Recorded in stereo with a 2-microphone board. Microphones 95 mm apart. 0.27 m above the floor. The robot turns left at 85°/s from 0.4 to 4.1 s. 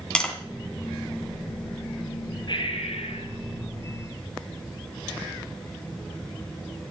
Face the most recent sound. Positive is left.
turn(degrees=-5)